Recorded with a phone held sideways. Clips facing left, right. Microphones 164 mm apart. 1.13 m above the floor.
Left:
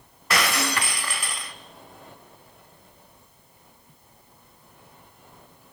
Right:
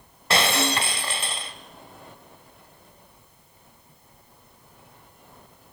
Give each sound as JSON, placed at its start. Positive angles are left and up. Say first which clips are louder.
{"t": 0.3, "sound": "breaking glass", "louder": "right 2 dB", "side_deg": -30, "distance_m": 2.0}